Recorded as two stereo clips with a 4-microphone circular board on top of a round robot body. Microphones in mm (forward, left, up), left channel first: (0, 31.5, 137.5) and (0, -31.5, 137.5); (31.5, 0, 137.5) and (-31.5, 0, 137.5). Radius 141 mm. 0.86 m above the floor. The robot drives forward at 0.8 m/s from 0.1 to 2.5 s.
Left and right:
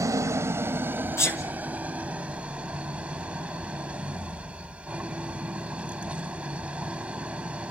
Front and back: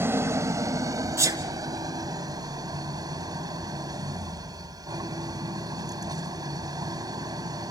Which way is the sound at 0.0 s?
130° right.